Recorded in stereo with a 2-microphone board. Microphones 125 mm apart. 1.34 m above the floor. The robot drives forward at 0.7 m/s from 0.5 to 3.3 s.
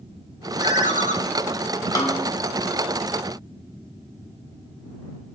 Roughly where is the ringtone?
Left.